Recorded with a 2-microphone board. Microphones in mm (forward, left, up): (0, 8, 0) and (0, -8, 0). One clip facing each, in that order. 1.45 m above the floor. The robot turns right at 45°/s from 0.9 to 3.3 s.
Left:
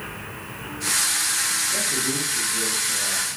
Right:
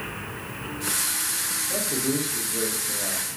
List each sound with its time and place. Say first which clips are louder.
1.7 s a man speaking: left 2 dB; 95° right, 1.8 m; by 3.2 s 25° right, 1.8 m